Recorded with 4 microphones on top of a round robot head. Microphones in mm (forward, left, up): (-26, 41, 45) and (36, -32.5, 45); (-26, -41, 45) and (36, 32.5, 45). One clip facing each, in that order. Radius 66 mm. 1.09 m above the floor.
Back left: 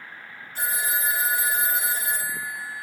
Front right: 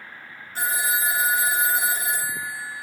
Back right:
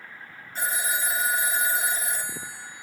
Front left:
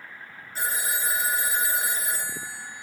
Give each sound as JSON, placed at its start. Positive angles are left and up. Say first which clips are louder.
{"t": 0.6, "sound": "a phone ringing", "louder": "front right 3 dB, back right 1 dB", "azimuth_deg": -35, "distance_m": 2.0}